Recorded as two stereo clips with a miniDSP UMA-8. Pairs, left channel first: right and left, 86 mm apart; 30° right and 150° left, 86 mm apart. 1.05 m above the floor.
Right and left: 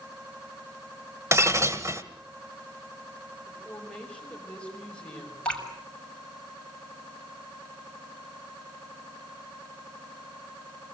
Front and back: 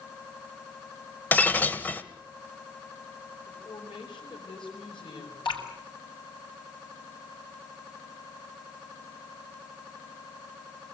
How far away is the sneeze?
No sneeze in this recording.